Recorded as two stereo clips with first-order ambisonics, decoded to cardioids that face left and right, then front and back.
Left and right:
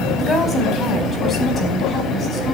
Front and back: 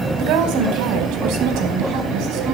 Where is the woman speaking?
160° left, 4.5 m; by 2.5 s 145° left, 5 m.